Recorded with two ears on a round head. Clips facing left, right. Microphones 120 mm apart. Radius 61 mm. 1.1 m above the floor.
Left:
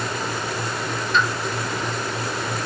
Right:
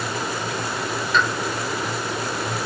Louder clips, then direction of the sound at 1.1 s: Even; 80° right.